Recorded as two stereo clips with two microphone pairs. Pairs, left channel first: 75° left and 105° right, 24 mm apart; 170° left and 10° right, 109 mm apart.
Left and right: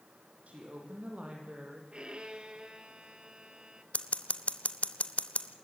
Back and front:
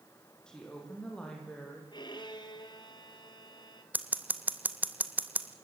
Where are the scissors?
65° left, 1.1 m.